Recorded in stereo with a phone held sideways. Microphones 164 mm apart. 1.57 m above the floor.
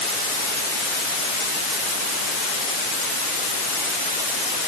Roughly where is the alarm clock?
No alarm clock in this recording.